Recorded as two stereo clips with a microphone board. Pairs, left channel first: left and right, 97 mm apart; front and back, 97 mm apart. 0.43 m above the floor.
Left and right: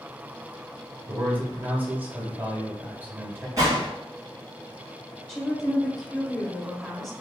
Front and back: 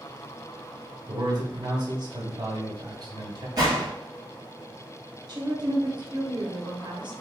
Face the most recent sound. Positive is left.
turn(degrees=175)